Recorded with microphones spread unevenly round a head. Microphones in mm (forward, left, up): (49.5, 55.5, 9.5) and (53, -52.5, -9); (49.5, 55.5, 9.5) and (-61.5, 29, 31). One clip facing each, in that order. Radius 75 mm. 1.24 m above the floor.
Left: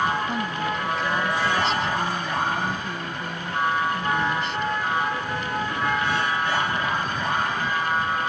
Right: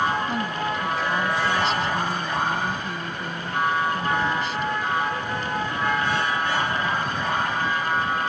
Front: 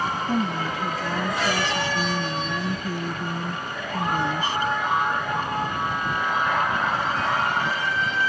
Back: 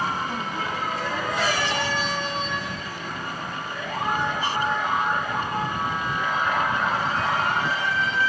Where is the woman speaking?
Straight ahead.